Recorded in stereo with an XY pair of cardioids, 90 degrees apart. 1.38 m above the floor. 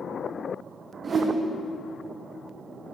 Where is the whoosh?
40° right, 1.3 m.